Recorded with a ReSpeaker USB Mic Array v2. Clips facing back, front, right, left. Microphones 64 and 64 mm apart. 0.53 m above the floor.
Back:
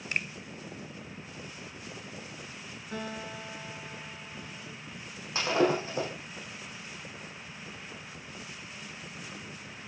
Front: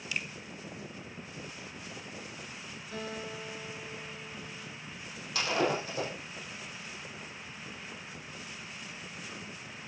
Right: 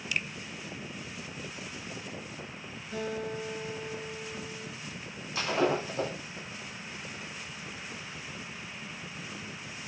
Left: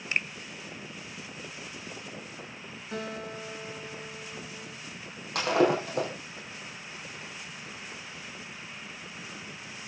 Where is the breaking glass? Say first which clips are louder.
Back 4 dB, left 4 dB; 120° left, 6 m.